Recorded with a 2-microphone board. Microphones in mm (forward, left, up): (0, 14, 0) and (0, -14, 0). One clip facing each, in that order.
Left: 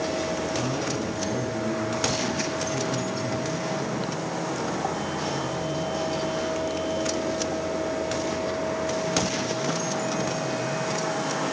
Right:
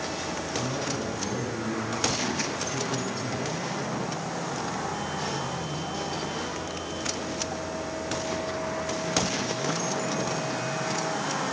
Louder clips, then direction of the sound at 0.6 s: Left 3 dB; 5° right (ahead or behind).